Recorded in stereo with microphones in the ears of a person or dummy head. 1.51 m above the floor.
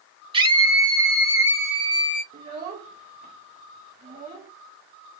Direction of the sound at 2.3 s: 35° right (ahead or behind).